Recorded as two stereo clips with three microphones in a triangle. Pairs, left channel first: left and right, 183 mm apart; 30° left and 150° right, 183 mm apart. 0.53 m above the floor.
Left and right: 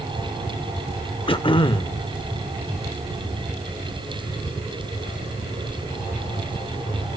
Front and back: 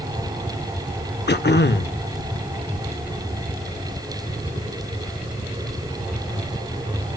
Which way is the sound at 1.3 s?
35° left.